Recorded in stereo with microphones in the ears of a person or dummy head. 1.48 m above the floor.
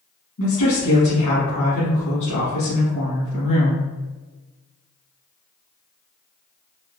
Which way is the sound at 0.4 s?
60° left (ahead or behind).